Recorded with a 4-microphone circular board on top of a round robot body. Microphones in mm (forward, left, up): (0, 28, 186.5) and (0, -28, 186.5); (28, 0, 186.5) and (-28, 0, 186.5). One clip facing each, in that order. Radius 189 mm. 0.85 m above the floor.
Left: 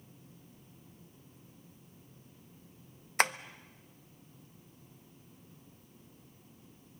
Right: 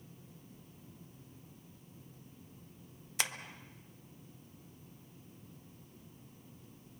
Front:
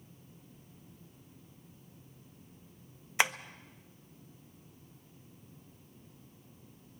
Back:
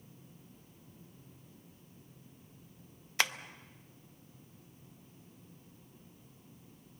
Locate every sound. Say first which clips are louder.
3.2 s tapping: left 9 dB, front 3 dB; 65° left, 0.9 m